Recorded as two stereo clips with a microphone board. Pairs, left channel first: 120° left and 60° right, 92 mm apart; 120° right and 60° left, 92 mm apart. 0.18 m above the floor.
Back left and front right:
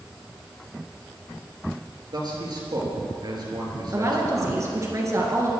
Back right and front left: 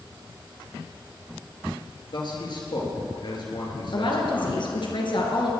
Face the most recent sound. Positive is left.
turn(degrees=-110)